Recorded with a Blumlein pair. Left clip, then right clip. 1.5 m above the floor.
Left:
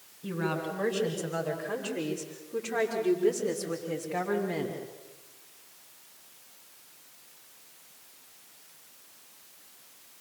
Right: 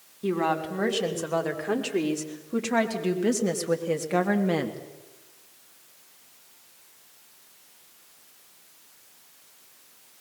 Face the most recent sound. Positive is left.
turn(degrees=-40)